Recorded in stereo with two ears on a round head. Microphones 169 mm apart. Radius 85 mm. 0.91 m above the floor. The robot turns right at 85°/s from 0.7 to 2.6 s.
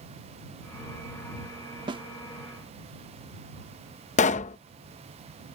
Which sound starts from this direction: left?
A pop, at 4.2 s.